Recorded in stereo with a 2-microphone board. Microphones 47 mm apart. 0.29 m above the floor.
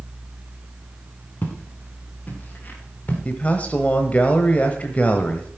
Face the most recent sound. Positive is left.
turn(degrees=30)  # may be behind; listen again after turning